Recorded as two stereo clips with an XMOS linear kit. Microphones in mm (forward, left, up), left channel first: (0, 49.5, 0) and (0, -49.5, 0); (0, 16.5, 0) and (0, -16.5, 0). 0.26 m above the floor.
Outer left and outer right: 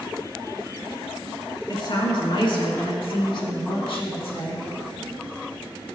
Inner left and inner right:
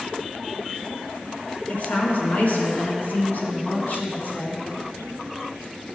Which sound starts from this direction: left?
A woman speaking, at 1.7 s.